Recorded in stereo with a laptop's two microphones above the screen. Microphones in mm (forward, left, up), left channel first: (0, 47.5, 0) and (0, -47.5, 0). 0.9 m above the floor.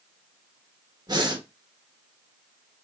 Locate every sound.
1.1 s breathing: 45° right (ahead or behind), 1.0 m